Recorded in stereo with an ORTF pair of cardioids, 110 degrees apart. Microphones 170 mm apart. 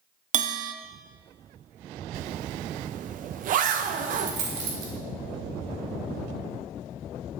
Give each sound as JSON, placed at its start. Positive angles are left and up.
{"t": 0.3, "sound": "a bell", "azimuth_deg": -50, "distance_m": 0.5}
{"t": 2.1, "sound": "a zipper", "azimuth_deg": -55, "distance_m": 0.7}
{"t": 4.2, "sound": "a dropped coin", "azimuth_deg": -70, "distance_m": 2.0}